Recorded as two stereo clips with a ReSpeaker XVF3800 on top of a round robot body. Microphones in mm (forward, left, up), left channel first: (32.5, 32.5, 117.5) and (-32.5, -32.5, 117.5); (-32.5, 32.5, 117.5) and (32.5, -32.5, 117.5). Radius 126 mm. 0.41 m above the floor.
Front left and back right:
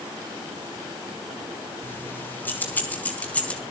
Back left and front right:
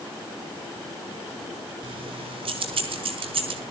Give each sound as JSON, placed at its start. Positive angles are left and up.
{"t": 1.8, "sound": "keys jangling", "azimuth_deg": -20, "distance_m": 4.0}